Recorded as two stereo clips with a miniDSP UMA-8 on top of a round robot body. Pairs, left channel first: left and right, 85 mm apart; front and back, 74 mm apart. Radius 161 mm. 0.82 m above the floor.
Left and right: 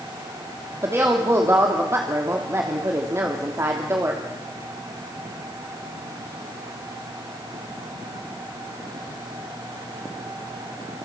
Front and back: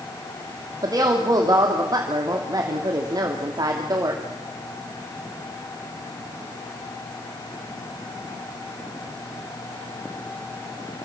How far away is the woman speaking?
About 2.5 m.